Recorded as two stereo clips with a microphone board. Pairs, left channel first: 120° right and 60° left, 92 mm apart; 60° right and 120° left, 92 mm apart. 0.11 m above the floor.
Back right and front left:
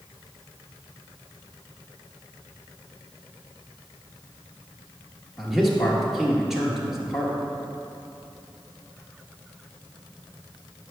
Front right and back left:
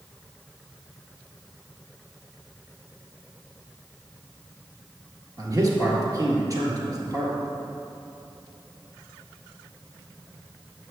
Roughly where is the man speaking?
Behind left.